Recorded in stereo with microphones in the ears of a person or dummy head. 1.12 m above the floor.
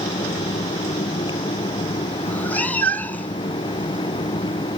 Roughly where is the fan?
Left.